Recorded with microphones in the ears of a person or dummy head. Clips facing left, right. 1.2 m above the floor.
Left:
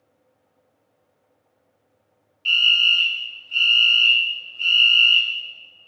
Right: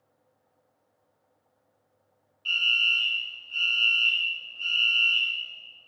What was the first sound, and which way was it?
A fire alarm, 35° left (ahead or behind).